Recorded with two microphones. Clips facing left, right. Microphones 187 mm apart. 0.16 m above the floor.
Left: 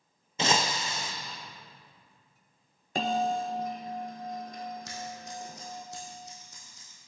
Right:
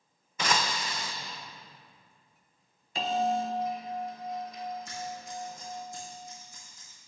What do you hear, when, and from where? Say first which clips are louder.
0.4 s breaking glass: left 2 dB; 25° left (ahead or behind), 0.5 m
3.0 s a bell: even; 50° left (ahead or behind), 0.6 m
4.8 s scissors: right 1 dB; 75° left (ahead or behind), 3 m